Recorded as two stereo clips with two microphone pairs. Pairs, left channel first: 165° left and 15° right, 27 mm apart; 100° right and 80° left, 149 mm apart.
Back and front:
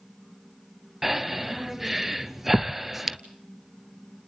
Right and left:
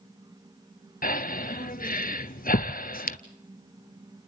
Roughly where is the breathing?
Right.